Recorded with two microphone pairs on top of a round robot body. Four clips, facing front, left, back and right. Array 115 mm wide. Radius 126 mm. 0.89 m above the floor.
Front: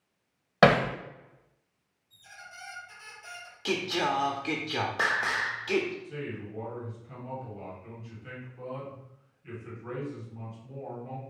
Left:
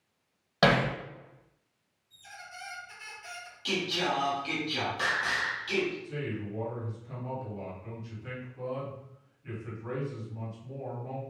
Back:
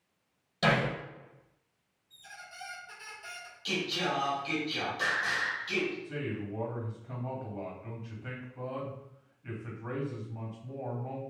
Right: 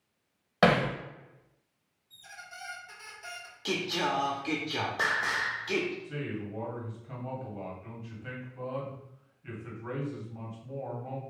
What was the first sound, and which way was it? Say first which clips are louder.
Hammering: right 1 dB, front 7 dB; 5° right.